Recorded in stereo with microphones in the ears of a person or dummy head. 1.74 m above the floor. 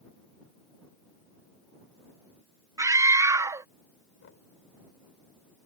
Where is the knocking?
80° left.